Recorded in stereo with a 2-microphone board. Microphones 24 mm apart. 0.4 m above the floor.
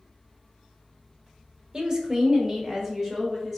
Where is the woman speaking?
35° right (ahead or behind), 1.2 m; by 3.6 s 15° right (ahead or behind), 1.5 m.